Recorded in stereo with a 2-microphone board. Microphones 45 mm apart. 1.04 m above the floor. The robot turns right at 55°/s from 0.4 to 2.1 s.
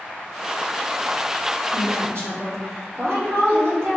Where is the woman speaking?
45° right (ahead or behind), 1.3 m; by 4.0 s 65° right (ahead or behind), 1.3 m.